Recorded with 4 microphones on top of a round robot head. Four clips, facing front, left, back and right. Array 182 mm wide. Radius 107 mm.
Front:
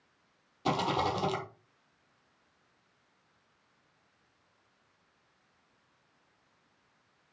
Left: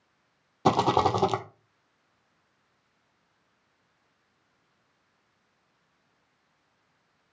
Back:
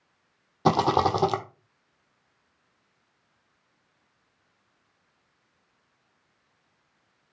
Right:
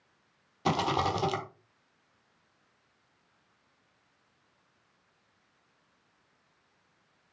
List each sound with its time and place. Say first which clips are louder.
0.7 s a rattle: left 6 dB, back 8 dB; 140° left, 1.2 m